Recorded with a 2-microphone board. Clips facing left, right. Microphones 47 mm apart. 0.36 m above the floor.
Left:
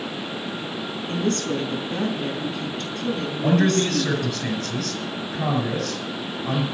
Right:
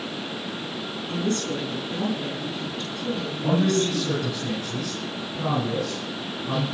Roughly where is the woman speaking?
Left.